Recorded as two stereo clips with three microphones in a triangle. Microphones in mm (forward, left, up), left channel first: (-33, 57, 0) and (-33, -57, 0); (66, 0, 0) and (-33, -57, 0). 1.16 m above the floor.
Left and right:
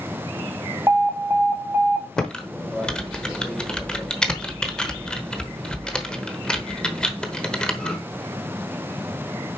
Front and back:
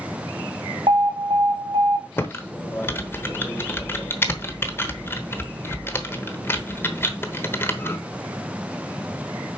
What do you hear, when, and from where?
0.9 s an alarm: 160° right, 1.0 m
2.2 s typing on a keyboard: 20° left, 0.9 m